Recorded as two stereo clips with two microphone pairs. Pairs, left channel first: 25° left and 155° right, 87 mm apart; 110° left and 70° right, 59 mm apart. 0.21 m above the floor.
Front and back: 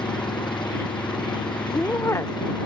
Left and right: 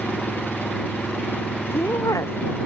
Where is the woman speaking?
85° left.